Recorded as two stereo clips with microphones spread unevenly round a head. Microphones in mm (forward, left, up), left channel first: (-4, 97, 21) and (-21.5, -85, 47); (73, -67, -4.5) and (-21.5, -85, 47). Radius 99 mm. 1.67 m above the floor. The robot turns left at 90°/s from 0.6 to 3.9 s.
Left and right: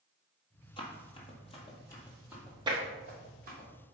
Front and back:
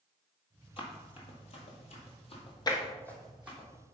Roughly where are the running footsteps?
Ahead left.